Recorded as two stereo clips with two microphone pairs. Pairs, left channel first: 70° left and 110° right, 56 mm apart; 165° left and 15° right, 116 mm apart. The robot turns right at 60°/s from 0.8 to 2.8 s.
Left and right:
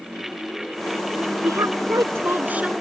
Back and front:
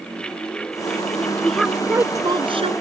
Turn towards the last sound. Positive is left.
turn(degrees=-30)